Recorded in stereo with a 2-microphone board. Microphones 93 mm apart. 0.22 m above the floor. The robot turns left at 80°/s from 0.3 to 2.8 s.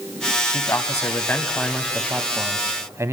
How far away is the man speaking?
About 1.1 m.